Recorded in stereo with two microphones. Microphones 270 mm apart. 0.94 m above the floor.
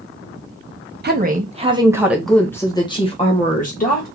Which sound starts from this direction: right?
A woman speaking, at 1.0 s.